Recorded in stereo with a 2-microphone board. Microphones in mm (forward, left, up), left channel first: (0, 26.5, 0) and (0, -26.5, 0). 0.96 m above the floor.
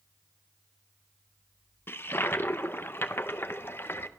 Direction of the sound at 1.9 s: 45° left (ahead or behind).